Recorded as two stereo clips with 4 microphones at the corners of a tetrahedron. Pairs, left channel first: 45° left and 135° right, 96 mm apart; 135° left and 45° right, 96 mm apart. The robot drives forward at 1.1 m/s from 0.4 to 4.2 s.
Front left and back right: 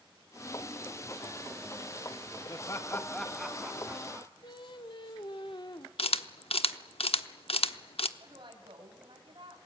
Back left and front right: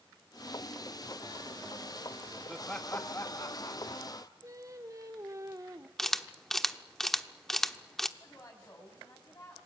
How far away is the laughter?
About 1.2 m.